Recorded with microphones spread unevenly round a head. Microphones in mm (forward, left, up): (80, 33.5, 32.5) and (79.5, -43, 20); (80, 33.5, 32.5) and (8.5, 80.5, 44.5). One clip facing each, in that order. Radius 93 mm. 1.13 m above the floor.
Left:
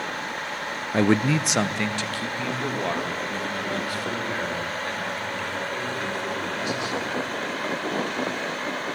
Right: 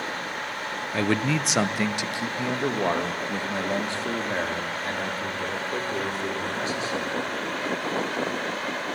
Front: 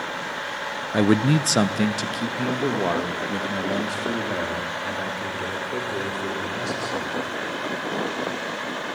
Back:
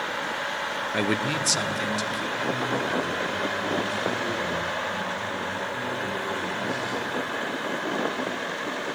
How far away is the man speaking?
About 0.6 m.